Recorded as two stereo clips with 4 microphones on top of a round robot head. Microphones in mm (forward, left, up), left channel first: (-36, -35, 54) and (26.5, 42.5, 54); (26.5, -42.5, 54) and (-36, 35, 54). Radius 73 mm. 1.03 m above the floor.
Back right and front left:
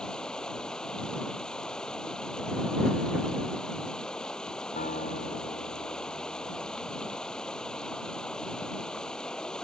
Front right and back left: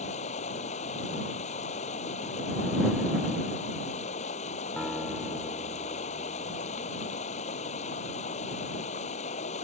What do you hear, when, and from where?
0.0 s running water: 45° right
4.8 s a guitar: 135° right